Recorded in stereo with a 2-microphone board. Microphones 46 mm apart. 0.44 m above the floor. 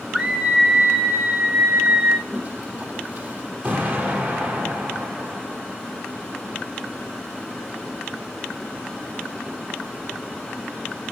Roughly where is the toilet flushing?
Right.